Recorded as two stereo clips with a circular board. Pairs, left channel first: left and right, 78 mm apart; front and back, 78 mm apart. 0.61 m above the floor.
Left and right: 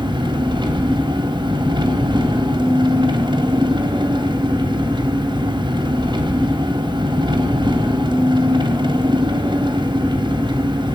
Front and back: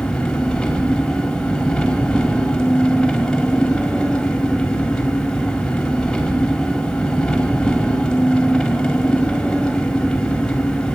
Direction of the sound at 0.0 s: 80° right.